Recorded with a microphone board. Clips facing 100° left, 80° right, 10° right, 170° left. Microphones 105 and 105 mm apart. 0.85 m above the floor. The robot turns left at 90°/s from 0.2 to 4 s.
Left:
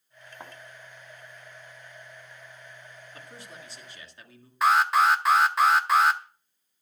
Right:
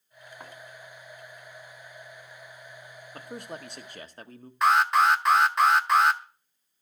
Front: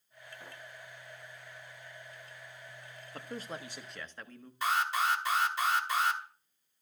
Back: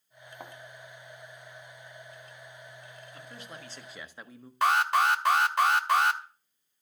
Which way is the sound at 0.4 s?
175° left.